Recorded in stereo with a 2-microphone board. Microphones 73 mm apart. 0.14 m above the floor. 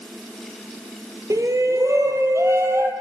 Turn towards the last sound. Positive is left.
turn(degrees=-40)  # may be behind; listen again after turning